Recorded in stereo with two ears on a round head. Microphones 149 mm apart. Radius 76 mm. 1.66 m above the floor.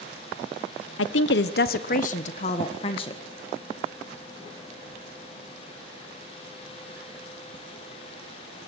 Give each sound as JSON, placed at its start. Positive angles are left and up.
{"t": 1.0, "sound": "a woman speaking", "side_deg": 80, "distance_m": 1.0}